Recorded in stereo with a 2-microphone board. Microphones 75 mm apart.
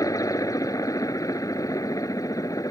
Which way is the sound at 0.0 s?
50° left (ahead or behind).